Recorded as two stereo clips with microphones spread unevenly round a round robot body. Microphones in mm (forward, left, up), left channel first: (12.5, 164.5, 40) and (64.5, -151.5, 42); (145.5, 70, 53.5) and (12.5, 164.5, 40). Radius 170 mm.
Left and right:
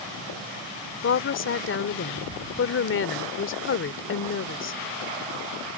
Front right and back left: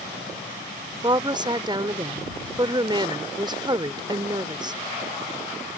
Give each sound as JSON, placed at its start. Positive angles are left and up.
{"t": 1.0, "sound": "a woman speaking", "azimuth_deg": 110}